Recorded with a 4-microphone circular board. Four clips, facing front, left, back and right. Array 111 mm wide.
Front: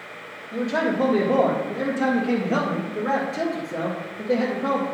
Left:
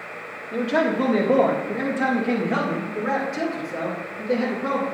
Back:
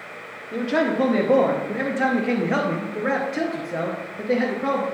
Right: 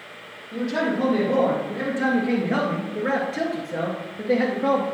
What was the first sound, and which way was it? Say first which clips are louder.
A man speaking: left 3 dB, back 2 dB; 150° left.